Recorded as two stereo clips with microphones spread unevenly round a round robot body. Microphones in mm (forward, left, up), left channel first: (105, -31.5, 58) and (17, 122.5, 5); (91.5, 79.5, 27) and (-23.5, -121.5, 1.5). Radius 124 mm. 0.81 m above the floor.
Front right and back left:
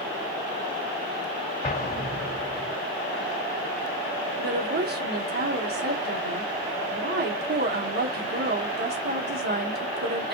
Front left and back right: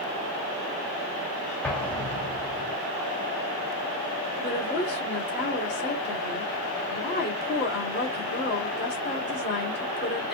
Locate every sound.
1.6 s an explosion: 25° right, 1.8 m
4.4 s a woman speaking: 110° left, 2 m